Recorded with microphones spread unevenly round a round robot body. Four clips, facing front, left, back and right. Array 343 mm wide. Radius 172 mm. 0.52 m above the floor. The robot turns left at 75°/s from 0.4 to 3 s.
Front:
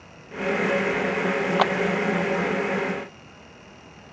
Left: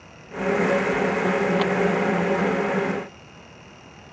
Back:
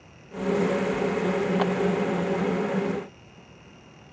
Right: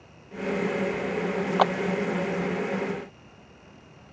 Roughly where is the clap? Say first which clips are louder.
Right 1 dB, front 7 dB; ahead right.